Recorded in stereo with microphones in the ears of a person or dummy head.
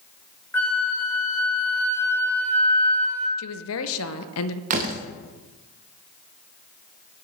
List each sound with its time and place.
0.5 s a flute: 15° left (ahead or behind), 0.9 m
3.4 s a woman speaking: 70° left (ahead or behind), 0.5 m
4.7 s a door slam: 45° right (ahead or behind), 0.7 m